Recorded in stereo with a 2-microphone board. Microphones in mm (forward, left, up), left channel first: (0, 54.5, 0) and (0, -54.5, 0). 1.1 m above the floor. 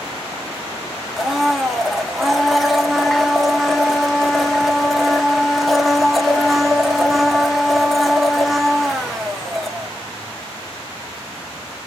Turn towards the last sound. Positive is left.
turn(degrees=0)  # may be behind; listen again after turning